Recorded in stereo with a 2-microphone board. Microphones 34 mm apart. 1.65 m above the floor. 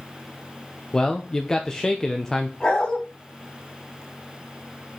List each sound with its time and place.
0.9 s a man speaking: 20° left (ahead or behind), 0.8 m
2.6 s a dog barking: 25° left (ahead or behind), 4 m